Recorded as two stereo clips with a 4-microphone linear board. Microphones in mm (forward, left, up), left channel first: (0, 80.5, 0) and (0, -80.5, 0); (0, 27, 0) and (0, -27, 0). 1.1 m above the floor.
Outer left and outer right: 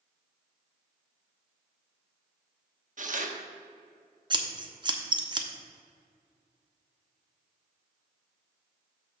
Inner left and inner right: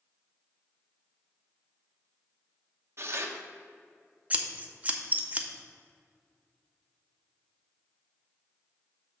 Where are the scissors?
25° right (ahead or behind), 0.7 m.